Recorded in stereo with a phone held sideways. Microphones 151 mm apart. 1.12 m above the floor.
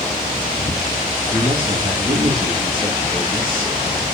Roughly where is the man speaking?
Right.